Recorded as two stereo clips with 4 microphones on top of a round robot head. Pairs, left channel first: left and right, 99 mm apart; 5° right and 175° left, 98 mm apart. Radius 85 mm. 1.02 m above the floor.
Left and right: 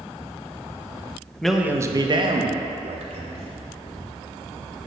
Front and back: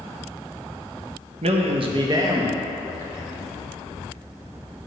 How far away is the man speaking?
About 1.0 m.